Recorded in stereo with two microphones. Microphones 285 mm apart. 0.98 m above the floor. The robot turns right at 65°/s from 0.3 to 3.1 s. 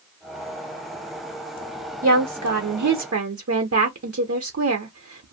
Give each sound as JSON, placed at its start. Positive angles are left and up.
{"t": 2.0, "sound": "a woman speaking", "azimuth_deg": -130, "distance_m": 0.6}